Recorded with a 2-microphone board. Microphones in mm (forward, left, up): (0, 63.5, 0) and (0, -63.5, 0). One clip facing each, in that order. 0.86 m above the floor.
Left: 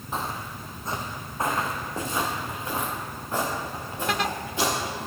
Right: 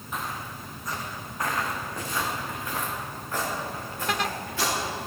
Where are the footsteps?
30° left (ahead or behind), 2.0 m; by 5.1 s 20° left (ahead or behind), 7.5 m.